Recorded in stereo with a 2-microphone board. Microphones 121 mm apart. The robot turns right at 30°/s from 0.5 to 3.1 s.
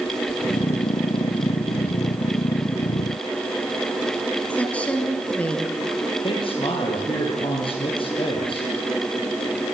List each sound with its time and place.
4.5 s a woman speaking: 10° left (ahead or behind), 2.5 m
6.2 s a man speaking: 45° left (ahead or behind), 6.5 m